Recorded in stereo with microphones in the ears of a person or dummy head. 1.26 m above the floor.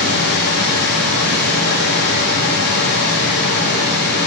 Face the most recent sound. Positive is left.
turn(degrees=50)  # may be behind; listen again after turning